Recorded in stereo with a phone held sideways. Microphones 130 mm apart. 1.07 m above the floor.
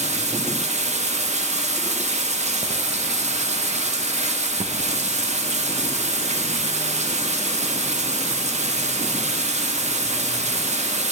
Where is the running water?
60° right (ahead or behind), 0.7 m.